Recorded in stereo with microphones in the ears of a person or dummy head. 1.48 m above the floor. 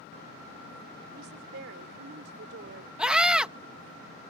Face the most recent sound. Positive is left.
turn(degrees=-5)  # may be behind; listen again after turning